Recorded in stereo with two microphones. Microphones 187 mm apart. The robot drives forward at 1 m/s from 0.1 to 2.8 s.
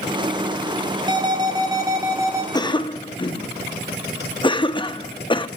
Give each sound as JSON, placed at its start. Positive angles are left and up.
{"t": 1.1, "sound": "an alarm", "side_deg": -25, "distance_m": 2.0}
{"t": 2.5, "sound": "a cough", "side_deg": 20, "distance_m": 0.7}